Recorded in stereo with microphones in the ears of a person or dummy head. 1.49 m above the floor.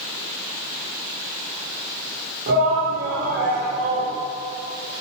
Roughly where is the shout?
Right.